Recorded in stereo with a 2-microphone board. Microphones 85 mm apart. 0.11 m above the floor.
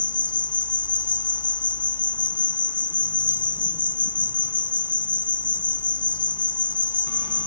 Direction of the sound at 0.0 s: 60° left (ahead or behind).